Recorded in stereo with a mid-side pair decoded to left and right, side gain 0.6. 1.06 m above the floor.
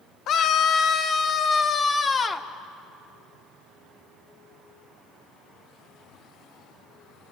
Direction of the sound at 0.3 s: 50° left.